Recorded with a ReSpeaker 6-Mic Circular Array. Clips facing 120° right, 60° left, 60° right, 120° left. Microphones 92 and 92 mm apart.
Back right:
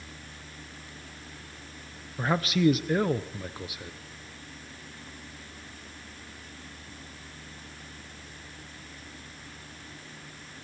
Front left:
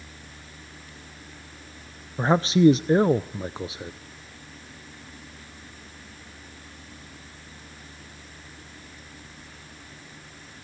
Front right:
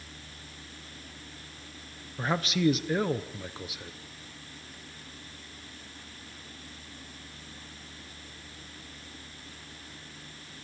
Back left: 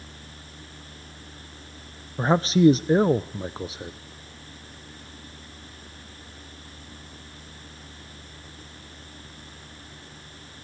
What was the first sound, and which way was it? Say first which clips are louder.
A man speaking: front left 7 dB, back left 9 dB; 95° left.